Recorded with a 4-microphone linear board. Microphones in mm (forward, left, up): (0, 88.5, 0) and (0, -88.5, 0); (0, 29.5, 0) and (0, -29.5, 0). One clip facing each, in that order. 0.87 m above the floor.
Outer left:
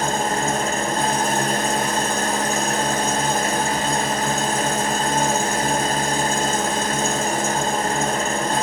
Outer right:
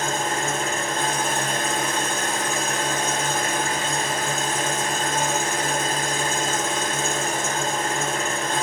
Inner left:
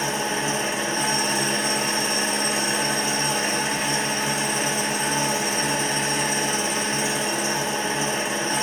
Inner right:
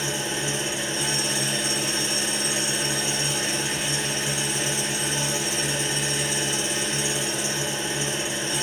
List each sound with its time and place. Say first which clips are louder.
0.0 s an engine running: outer left 4 dB, inner left 4 dB; 40° left (ahead or behind), 5 m